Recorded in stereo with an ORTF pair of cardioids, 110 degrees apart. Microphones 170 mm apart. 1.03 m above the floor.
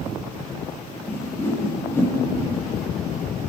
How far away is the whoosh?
About 8 m.